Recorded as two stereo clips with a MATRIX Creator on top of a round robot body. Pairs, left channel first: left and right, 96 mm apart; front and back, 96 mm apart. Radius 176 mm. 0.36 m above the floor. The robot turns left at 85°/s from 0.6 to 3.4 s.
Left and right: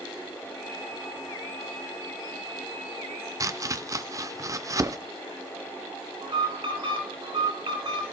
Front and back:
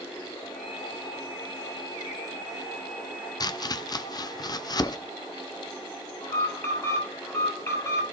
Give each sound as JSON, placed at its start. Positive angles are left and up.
{"t": 3.4, "sound": "chopping", "azimuth_deg": -40, "distance_m": 0.8}
{"t": 6.2, "sound": "an alarm", "azimuth_deg": -60, "distance_m": 8.0}